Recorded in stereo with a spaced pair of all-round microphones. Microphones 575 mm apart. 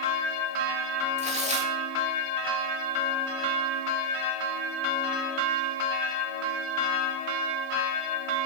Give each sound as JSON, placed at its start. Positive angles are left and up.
{"t": 1.2, "sound": "tearing paper", "side_deg": -10, "distance_m": 3.0}